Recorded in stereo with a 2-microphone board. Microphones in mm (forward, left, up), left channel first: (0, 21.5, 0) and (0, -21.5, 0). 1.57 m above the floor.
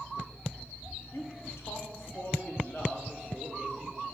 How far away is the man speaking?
About 1.0 m.